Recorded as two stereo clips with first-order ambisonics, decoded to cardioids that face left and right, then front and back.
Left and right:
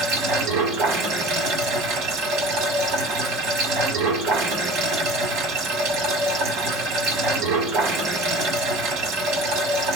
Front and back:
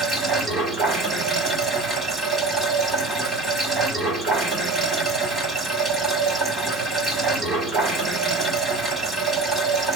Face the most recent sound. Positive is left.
turn(degrees=-95)